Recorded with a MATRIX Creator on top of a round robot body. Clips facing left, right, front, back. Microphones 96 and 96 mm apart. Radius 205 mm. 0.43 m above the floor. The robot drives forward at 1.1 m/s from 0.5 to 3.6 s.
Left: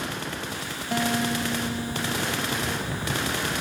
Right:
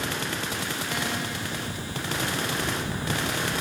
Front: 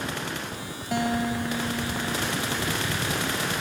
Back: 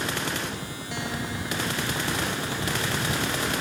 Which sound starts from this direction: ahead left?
A guitar, at 0.9 s.